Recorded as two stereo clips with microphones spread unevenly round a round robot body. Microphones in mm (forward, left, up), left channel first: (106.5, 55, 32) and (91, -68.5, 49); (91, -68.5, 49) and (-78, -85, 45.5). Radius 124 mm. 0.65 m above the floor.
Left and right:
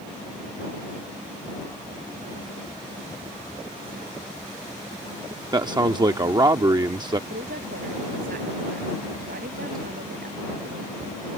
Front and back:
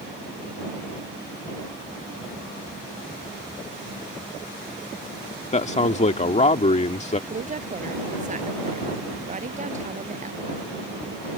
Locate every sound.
5.5 s a man speaking: 40° right
7.3 s a woman speaking: 130° right